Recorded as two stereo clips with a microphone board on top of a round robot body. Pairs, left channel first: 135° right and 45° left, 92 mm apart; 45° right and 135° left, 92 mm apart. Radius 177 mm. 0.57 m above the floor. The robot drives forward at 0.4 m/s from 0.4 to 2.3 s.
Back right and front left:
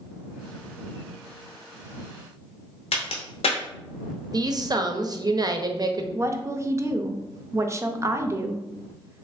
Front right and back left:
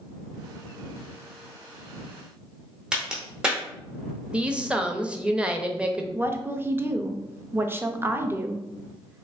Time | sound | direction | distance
2.9 | a crack | 145° right | 0.6 m
4.3 | a woman speaking | 60° left | 0.7 m
6.2 | a woman speaking | 85° left | 0.6 m